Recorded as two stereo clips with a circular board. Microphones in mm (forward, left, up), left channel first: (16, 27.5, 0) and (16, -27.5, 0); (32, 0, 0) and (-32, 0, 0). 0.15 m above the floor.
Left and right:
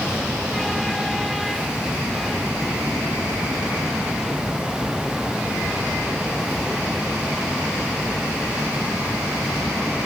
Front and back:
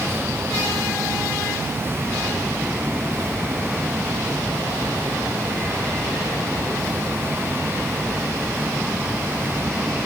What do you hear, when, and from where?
Only background noise.